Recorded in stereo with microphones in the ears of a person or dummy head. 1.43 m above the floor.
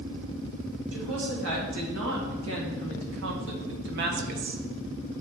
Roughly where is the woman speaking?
Right.